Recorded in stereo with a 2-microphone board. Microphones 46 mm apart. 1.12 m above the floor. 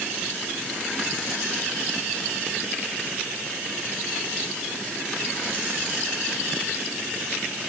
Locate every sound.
Only background noise.